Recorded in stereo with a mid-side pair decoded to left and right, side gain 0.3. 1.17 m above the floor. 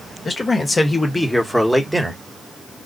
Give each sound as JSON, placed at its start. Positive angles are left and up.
{"t": 0.2, "sound": "a man speaking", "azimuth_deg": 40, "distance_m": 1.6}